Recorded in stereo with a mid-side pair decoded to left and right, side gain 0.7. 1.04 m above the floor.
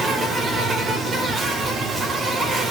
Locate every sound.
0.0 s an insect: 25° right, 2.5 m